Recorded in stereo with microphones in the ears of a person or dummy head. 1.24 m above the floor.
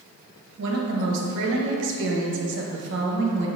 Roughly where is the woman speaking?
Right.